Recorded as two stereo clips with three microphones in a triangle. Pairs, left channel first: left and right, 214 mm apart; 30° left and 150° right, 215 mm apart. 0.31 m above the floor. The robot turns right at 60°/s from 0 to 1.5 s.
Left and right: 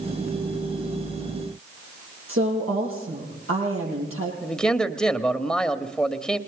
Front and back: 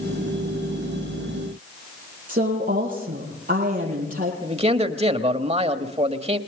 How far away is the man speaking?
About 1.2 m.